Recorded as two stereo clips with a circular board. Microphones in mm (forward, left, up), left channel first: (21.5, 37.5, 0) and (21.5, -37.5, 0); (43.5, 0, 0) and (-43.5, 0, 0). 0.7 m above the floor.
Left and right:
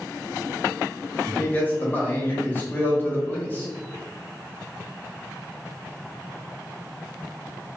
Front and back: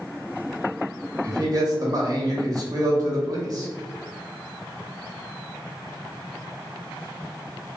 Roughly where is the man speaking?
Behind left.